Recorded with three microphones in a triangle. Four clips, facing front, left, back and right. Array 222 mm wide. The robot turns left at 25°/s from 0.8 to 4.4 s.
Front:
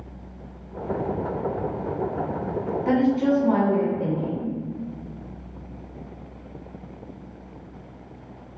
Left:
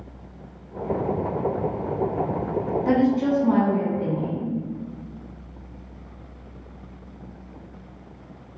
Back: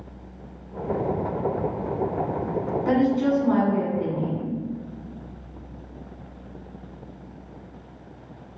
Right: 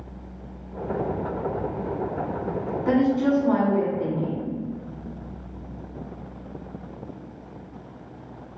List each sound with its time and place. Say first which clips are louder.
2.9 s a woman speaking: right 1 dB, front 1 dB; 45° left, 1.2 m; by 4.6 s 5° left, 1.2 m